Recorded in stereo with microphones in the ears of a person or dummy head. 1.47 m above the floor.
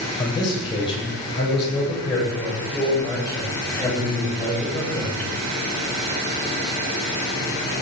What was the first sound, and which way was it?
A man speaking, 30° left (ahead or behind).